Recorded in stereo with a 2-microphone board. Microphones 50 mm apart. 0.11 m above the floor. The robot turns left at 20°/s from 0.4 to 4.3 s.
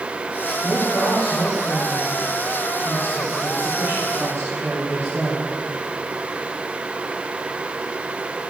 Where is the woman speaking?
5° right, 4.5 m; by 5.5 s 75° right, 4.5 m.